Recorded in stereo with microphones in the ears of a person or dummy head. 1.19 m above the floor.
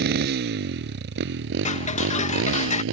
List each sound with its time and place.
0.0 s a motorcycle: 55° right (ahead or behind); by 2.9 s 75° right (ahead or behind)
1.6 s ticking: 35° left (ahead or behind)